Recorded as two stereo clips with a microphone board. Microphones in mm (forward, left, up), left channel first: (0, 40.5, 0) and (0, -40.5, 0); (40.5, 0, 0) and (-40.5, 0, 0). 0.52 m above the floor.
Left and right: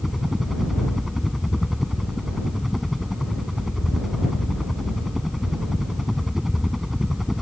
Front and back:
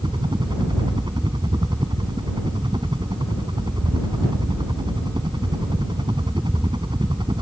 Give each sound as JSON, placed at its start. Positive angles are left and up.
{"t": 0.0, "sound": "a helicopter", "azimuth_deg": -175}